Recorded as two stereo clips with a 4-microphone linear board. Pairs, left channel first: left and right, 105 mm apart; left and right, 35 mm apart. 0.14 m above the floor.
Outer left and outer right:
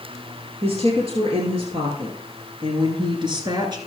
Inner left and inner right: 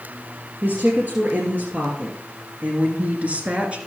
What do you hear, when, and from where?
0.6 s a woman speaking: 65° right (ahead or behind), 2.5 m; by 3.8 s 40° right (ahead or behind), 1.8 m